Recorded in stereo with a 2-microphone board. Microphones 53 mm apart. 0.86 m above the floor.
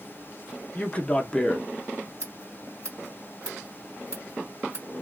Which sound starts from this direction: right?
Scissors, at 2.2 s.